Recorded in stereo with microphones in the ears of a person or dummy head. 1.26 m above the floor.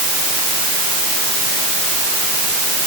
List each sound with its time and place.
Only background noise.